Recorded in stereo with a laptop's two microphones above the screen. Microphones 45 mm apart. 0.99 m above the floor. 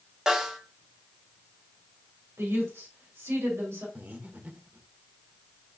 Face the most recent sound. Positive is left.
turn(degrees=-40)  # may be behind; listen again after turning